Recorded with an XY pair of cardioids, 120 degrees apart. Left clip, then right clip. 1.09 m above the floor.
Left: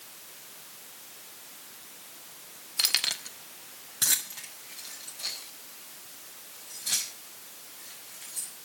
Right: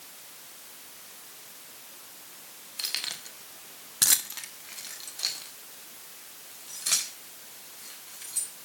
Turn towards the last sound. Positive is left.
turn(degrees=-65)